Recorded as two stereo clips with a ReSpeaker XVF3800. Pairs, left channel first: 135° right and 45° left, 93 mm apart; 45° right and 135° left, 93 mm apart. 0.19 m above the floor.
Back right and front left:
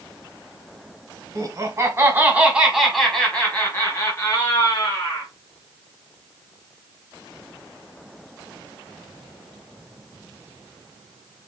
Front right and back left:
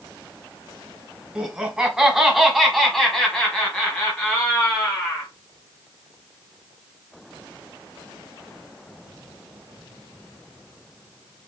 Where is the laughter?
60° left, 1.4 m; by 5.3 s 115° right, 1.7 m.